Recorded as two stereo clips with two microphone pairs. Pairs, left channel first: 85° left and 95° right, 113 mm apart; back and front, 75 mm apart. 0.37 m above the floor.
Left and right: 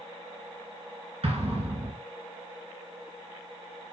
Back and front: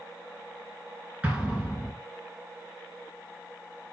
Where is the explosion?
70° right, 1.9 m.